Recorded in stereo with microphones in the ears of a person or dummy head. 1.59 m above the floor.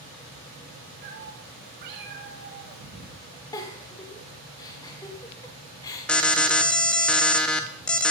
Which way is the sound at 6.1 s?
5° left (ahead or behind).